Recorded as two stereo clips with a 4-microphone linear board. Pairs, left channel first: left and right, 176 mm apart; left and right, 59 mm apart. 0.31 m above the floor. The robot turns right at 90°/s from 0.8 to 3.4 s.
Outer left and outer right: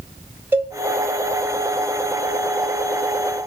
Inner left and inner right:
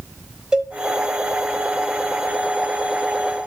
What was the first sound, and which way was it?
A cowbell, 10° right (ahead or behind).